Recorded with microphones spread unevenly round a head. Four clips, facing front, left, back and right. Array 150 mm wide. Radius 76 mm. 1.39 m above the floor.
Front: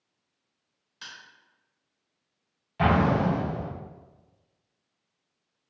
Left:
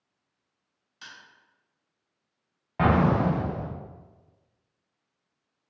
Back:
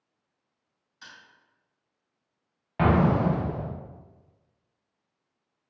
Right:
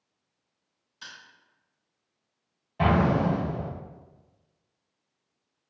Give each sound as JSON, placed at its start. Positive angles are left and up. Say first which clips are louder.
{"t": 1.0, "sound": "crushing", "louder": "right 1 dB, front 3 dB", "azimuth_deg": 20, "distance_m": 1.9}
{"t": 2.8, "sound": "an explosion", "louder": "left 1 dB, back 1 dB", "azimuth_deg": 135, "distance_m": 0.7}